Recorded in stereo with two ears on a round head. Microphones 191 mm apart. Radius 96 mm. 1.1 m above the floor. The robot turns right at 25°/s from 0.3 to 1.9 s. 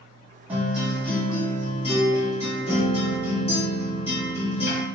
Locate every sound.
0.5 s a guitar: 10° right, 1.4 m; by 4.8 s 25° left, 1.4 m